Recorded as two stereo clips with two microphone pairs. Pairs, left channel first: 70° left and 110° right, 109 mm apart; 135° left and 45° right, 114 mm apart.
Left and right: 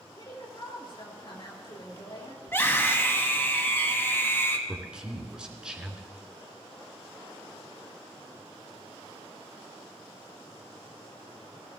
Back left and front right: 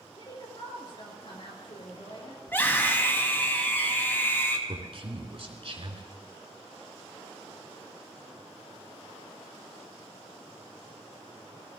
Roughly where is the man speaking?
Ahead right.